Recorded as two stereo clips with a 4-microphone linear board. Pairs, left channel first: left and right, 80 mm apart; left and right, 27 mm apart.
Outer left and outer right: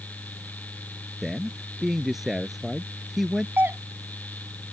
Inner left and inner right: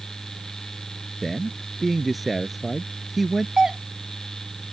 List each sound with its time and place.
1.2 s a man speaking: centre (ahead or behind)
3.6 s a doorbell: 25° right (ahead or behind)